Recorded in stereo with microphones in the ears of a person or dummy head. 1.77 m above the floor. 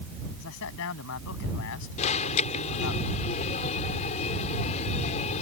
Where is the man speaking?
70° left (ahead or behind).